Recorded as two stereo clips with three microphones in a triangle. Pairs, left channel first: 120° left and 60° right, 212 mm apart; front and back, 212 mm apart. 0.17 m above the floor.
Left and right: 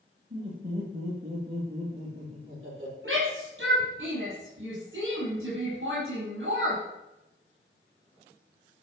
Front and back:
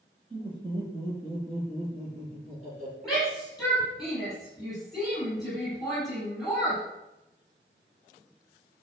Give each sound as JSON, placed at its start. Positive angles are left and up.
{"t": 0.3, "sound": "laughter", "azimuth_deg": -110, "distance_m": 5.5}
{"t": 3.0, "sound": "a shout", "azimuth_deg": -90, "distance_m": 6.0}